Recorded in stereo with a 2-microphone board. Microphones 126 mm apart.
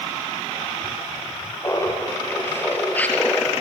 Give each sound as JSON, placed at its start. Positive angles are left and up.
{"t": 1.6, "sound": "laughter", "side_deg": 25, "distance_m": 3.5}